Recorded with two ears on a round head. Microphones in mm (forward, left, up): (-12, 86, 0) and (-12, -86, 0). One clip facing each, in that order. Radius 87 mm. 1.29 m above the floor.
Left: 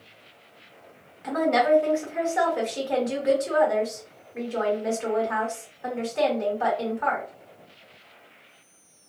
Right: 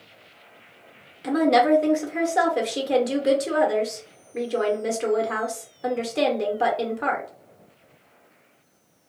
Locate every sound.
1.2 s a woman speaking: 45° right (ahead or behind), 0.9 m